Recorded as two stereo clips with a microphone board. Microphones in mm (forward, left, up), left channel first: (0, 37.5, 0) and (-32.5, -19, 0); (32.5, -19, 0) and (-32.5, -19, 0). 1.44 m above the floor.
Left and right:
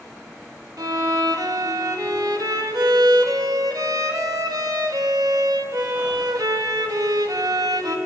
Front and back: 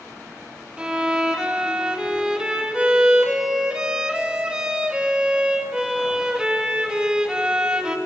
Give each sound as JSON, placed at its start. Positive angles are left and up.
{"t": 0.8, "sound": "a violin", "azimuth_deg": -105, "distance_m": 2.0}